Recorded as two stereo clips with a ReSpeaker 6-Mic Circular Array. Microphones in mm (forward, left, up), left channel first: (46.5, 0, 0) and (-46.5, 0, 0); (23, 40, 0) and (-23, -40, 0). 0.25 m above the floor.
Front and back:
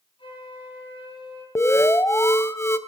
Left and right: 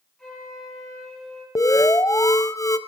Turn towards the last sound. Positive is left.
turn(degrees=40)